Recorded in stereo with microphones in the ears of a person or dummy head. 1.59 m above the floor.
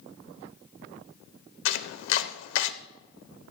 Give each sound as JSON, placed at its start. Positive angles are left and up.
{"t": 1.6, "sound": "chopping", "side_deg": 70, "distance_m": 1.0}